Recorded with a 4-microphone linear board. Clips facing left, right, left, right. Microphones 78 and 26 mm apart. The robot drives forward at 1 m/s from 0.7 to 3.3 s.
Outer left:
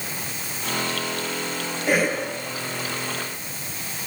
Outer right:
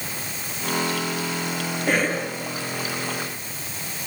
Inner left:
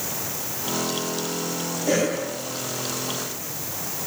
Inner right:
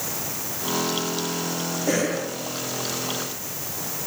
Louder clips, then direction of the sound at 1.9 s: Outer left 1 dB, inner left 2 dB; 5° right (ahead or behind).